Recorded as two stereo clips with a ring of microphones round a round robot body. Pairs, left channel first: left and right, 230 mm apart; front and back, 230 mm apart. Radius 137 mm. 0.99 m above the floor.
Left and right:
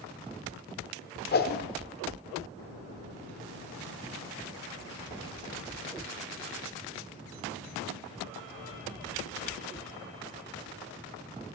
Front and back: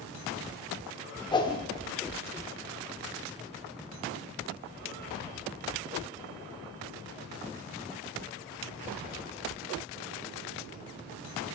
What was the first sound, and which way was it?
A whoosh, 65° left.